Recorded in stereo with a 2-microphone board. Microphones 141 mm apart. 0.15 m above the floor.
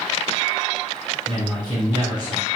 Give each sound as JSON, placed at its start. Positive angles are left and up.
{"t": 1.3, "sound": "a man speaking", "side_deg": -30, "distance_m": 1.7}